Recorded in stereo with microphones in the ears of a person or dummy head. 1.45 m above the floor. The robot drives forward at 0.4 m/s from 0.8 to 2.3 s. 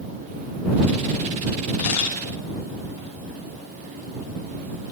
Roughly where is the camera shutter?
Left.